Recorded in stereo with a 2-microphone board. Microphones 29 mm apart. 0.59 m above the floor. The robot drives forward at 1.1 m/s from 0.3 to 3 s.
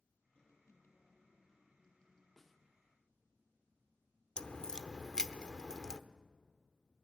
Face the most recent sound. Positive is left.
turn(degrees=30)  # may be behind; listen again after turning